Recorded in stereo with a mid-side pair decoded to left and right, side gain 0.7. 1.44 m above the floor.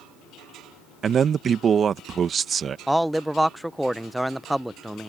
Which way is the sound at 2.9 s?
5° right.